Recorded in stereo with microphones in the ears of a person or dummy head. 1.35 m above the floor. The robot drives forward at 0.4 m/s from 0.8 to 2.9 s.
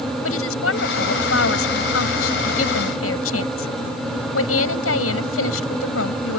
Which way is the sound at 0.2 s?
85° left.